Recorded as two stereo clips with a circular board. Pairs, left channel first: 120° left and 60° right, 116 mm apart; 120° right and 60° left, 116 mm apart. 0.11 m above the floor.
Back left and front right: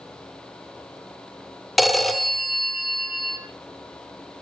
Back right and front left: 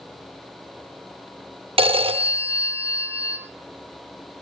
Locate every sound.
1.8 s a phone ringing: 30° left, 1.9 m